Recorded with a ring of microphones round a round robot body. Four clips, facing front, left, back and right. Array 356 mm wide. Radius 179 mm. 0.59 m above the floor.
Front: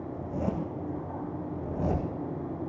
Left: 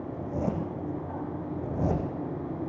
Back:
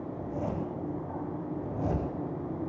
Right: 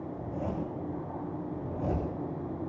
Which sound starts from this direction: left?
A zipper, at 0.1 s.